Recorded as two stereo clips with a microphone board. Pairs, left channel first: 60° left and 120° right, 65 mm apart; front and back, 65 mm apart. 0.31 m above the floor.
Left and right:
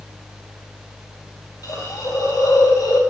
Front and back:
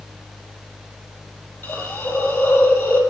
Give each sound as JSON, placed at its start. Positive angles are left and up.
{"t": 1.6, "sound": "a hiss", "azimuth_deg": 60, "distance_m": 2.0}